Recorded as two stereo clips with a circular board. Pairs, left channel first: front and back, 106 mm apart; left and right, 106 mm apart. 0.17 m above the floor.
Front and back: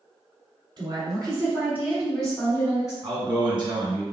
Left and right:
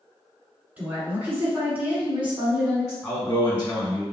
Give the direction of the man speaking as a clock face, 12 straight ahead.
6 o'clock.